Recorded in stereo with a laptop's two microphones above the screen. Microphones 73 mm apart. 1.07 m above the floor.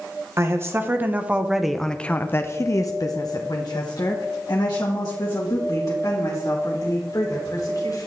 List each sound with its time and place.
0.4 s a woman speaking: 35° right (ahead or behind), 1.0 m; by 8.1 s 60° left (ahead or behind), 3 m